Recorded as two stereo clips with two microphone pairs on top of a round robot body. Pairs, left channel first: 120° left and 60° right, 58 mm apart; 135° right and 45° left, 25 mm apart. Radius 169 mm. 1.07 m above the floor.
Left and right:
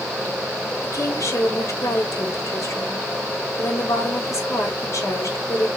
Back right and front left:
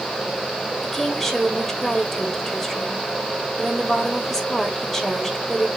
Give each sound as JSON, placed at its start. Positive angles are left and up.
{"t": 0.8, "sound": "a woman speaking", "azimuth_deg": 145, "distance_m": 4.0}